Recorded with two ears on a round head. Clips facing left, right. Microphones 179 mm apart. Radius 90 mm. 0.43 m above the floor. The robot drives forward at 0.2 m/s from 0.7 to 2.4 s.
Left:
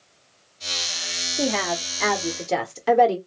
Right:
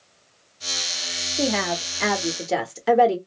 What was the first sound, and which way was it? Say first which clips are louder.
A woman speaking: right 1 dB; 5° right (ahead or behind).